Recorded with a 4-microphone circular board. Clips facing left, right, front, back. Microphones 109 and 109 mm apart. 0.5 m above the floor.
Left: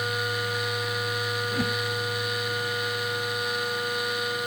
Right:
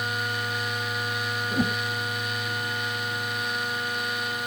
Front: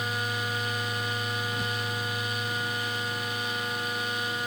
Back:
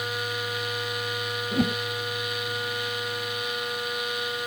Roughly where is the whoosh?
Behind.